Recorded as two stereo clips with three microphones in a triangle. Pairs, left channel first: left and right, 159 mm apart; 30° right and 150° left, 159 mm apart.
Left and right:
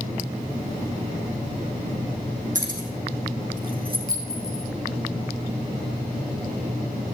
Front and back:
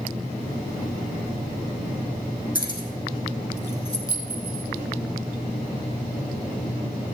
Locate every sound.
2.5 s keys jangling: 55° right, 3.5 m; by 4.0 s 85° right, 3 m
4.1 s a clink: 70° left, 4.5 m